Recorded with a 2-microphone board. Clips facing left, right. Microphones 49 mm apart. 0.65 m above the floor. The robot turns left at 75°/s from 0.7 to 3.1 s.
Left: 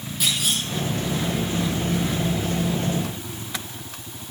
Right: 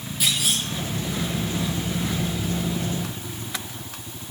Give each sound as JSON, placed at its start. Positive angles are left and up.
{"t": 0.2, "sound": "a clunk", "side_deg": 0, "distance_m": 4.0}